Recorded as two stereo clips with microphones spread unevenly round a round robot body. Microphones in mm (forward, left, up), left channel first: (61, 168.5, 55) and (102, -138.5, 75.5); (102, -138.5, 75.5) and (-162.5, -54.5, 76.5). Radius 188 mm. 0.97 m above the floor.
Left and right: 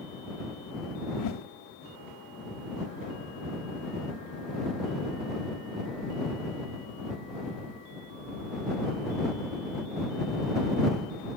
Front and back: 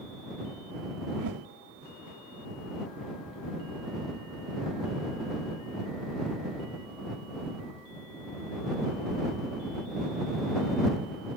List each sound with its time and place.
1.2 s a whoosh: 130° left